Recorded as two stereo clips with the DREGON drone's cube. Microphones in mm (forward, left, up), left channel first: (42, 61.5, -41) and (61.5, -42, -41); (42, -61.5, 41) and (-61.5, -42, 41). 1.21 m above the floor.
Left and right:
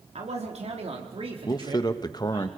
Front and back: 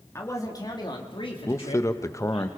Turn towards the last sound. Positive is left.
turn(degrees=50)